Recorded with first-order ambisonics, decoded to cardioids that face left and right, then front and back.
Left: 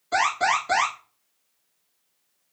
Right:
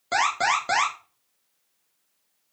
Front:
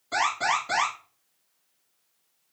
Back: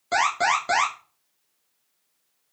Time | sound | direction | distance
0.1 | an alarm | 130° right | 2.5 m